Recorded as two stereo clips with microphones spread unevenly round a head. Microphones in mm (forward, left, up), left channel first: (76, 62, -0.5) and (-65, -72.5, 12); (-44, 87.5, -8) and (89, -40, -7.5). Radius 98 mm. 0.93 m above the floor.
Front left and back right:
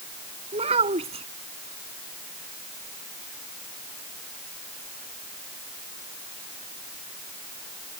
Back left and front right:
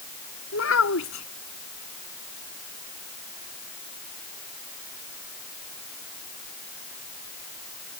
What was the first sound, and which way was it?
A child speaking, 160° left.